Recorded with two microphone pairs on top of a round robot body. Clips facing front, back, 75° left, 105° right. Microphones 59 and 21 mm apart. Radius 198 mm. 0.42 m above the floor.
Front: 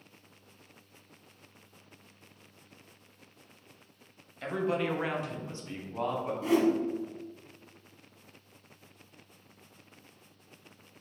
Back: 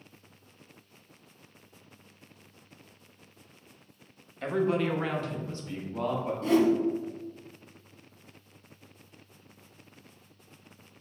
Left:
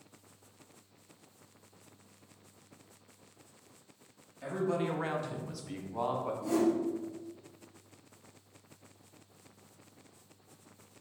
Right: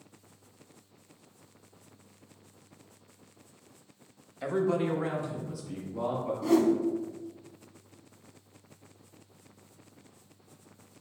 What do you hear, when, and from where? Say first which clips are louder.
4.4 s a man speaking: back 3 dB, right 5 dB; 90° right, 1.0 m; by 6.3 s 65° left, 2 m
6.4 s a whoosh: back 3 dB, right 6 dB; 75° right, 1.0 m